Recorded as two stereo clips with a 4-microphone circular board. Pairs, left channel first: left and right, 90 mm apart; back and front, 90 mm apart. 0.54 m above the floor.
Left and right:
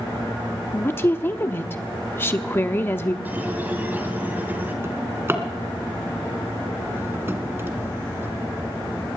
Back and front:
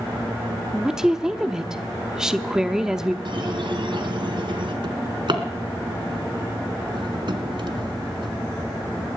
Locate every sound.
0.7 s a woman speaking: 75° left, 0.7 m
3.2 s a squeak: 20° right, 2.5 m
4.8 s a drawer: 25° right, 1.9 m